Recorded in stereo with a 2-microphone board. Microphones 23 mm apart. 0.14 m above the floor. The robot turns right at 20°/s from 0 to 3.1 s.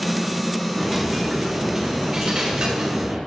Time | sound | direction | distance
0.7 | a dropped coin | 170° right | 3 m